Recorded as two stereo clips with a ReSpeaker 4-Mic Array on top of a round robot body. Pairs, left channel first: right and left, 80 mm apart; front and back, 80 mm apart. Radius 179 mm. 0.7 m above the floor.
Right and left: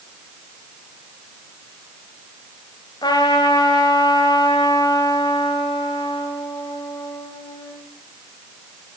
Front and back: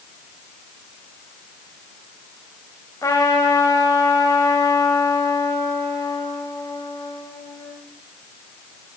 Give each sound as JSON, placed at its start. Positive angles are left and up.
{"t": 3.0, "sound": "a trumpet", "azimuth_deg": -50, "distance_m": 2.0}